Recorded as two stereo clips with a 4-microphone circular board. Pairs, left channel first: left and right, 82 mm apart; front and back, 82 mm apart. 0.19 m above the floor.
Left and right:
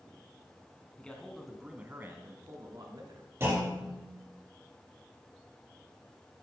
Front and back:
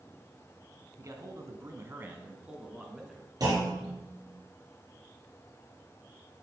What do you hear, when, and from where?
1.0 s a man speaking: 160° left, 1.5 m; by 3.3 s 90° right, 2.0 m
3.4 s a clunk: 145° right, 3 m